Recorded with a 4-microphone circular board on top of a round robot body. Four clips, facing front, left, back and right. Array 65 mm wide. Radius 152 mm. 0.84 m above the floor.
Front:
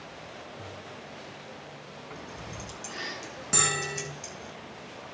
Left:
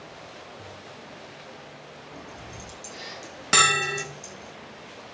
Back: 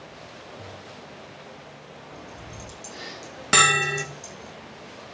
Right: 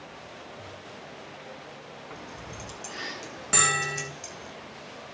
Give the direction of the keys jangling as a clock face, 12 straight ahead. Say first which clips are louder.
Even, front 1 dB; 2 o'clock.